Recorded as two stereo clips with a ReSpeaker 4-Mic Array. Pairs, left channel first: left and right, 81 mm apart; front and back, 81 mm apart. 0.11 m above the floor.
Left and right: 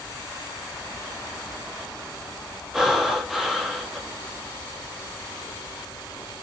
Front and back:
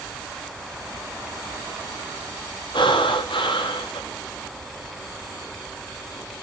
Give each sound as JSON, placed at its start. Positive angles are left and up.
{"t": 2.7, "sound": "breathing", "azimuth_deg": -5, "distance_m": 5.0}